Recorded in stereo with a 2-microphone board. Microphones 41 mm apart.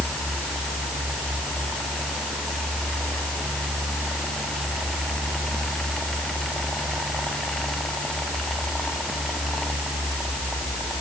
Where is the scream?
I don't hear a scream.